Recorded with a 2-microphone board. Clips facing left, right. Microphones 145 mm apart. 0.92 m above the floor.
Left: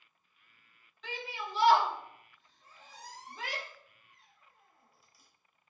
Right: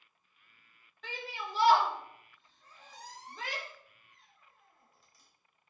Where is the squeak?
10° left (ahead or behind), 0.7 m.